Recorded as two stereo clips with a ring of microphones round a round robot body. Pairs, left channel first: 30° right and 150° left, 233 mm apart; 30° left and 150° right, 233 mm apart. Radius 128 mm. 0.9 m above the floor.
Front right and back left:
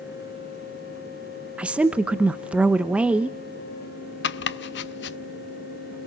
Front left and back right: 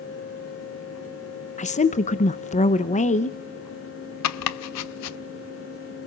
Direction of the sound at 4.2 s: 15° left.